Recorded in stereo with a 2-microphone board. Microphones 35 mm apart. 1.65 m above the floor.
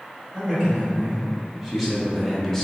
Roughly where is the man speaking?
Centre.